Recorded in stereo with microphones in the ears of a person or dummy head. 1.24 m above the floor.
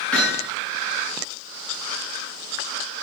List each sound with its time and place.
0.1 s hammering: 10° left (ahead or behind), 9 m